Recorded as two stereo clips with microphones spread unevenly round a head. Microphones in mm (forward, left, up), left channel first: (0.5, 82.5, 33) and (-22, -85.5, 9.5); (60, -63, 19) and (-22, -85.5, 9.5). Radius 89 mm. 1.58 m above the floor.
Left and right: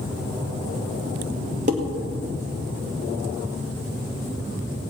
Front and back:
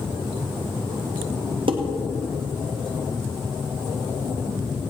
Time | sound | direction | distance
1.7 | dishes clattering | 150° right | 1.8 m